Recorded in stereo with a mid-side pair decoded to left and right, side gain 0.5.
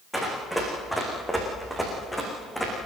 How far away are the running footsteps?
About 8 m.